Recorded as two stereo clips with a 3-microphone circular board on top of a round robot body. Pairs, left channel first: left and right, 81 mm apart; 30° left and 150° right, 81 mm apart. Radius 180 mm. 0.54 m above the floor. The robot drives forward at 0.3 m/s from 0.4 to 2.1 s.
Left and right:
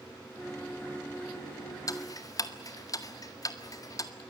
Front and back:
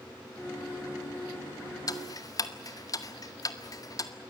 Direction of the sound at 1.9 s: 60° left.